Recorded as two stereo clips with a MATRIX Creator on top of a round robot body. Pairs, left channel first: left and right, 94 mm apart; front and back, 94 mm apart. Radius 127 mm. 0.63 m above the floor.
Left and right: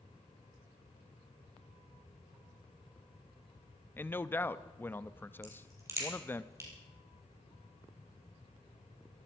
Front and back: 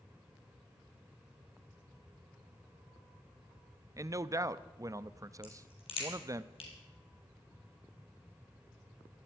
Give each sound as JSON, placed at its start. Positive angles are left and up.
{"t": 4.0, "sound": "a man speaking", "azimuth_deg": 150, "distance_m": 0.7}
{"t": 5.4, "sound": "a crack", "azimuth_deg": -30, "distance_m": 4.5}